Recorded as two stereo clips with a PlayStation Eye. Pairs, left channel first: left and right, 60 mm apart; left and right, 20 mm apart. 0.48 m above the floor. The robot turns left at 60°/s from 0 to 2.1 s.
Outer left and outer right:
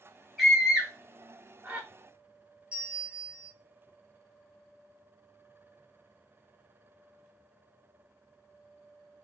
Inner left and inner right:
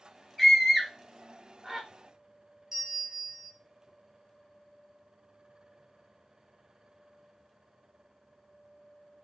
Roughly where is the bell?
Centre.